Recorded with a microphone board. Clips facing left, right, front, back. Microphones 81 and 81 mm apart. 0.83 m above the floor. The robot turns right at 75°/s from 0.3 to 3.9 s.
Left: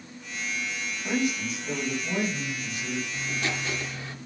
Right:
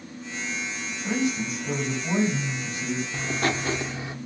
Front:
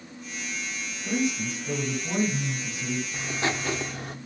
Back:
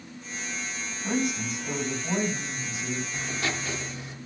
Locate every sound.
1.0 s a man speaking: 170° right, 4 m; by 3.0 s 20° right, 4 m
3.1 s writing: 80° right, 0.6 m; by 4.2 s 25° right, 0.6 m